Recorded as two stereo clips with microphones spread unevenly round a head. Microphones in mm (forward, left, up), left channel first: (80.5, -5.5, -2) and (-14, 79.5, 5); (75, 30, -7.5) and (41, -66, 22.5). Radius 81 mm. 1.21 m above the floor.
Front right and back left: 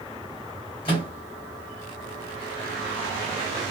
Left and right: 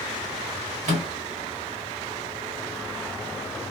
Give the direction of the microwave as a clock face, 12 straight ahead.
3 o'clock.